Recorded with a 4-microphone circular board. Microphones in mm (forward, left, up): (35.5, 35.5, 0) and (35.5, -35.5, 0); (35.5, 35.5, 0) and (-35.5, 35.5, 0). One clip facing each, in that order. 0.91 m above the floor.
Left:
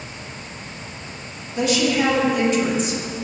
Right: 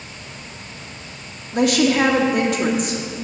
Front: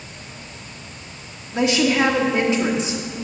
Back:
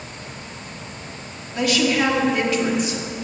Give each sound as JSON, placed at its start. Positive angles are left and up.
{"t": 1.5, "sound": "a woman speaking", "azimuth_deg": -65, "distance_m": 2.0}